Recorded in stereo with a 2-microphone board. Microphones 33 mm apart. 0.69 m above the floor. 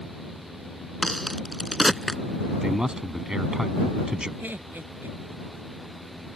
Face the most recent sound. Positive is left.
turn(degrees=-75)  # may be behind; listen again after turning